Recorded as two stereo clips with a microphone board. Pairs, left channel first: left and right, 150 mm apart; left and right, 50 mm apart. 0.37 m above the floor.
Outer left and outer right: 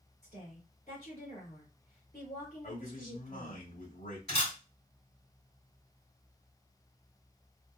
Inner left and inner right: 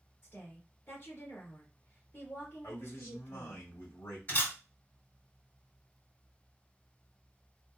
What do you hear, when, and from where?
0.2 s a woman speaking: 45° left (ahead or behind), 1.8 m
2.6 s a man speaking: 60° left (ahead or behind), 1.8 m
4.3 s a camera shutter: 40° left (ahead or behind), 2 m